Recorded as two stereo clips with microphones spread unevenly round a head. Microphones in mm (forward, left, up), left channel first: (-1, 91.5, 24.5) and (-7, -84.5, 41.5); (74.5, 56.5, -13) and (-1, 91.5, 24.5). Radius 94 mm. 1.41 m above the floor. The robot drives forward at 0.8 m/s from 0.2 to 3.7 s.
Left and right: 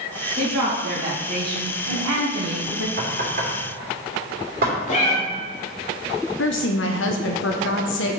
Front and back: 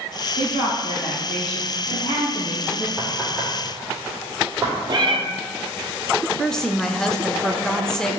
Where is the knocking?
120° right, 2.5 m; by 4.8 s 130° right, 3 m.